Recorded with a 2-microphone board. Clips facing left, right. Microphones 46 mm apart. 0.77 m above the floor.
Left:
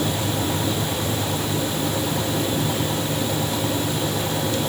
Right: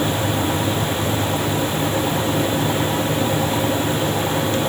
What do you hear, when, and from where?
Only background noise.